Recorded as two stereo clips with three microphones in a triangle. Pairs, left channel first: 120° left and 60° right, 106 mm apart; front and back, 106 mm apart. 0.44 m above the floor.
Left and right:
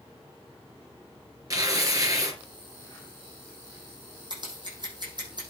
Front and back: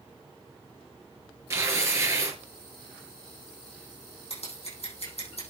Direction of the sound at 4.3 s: 15° right.